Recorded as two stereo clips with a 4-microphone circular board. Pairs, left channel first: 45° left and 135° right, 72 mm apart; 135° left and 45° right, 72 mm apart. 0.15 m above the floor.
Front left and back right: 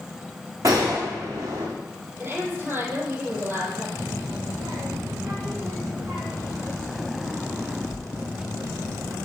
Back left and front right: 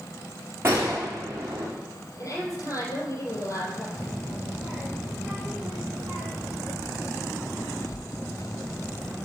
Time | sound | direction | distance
0.6 | a gunshot | 100° right | 5 m
2.2 | a woman speaking | 170° left | 3.5 m
4.0 | a child speaking | 145° right | 3 m